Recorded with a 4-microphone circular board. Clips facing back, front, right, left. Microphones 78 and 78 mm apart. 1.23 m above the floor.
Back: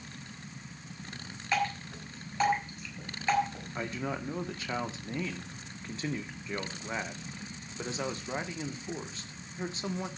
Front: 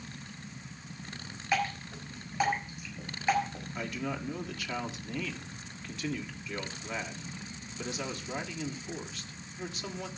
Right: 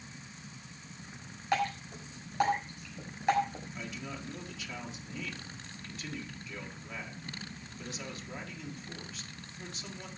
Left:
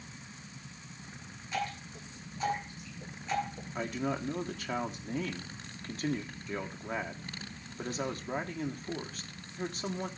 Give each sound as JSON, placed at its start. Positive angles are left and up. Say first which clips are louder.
{"t": 1.5, "sound": "dripping", "louder": "even, right 5 dB", "azimuth_deg": -85, "distance_m": 6.0}
{"t": 3.8, "sound": "a man speaking", "louder": "back 1 dB, left 11 dB", "azimuth_deg": 125, "distance_m": 1.5}